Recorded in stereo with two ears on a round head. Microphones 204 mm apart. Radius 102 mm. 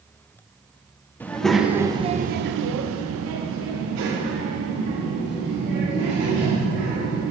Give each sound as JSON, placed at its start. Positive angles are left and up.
{"t": 1.2, "sound": "a child speaking", "side_deg": 10, "distance_m": 0.8}